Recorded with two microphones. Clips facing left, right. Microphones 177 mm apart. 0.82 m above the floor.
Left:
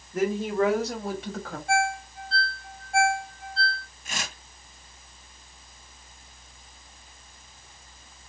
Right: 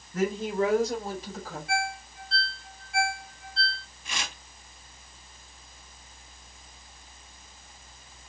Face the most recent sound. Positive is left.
turn(degrees=50)  # may be behind; listen again after turning